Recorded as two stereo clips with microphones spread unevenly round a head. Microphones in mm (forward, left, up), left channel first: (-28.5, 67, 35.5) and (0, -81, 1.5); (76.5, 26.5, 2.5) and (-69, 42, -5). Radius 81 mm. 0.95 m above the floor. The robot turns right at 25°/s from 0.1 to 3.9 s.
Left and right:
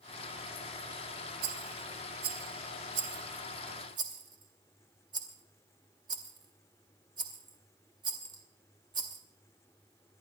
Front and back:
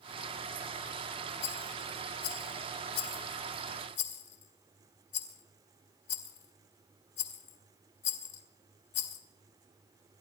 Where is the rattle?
80° right, 2.5 m; by 9.2 s 15° right, 2.5 m.